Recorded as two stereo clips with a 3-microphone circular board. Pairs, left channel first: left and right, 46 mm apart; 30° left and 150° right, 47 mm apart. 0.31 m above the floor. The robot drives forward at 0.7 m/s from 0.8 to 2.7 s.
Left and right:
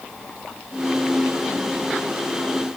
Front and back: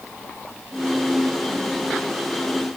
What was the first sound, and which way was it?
Only background noise.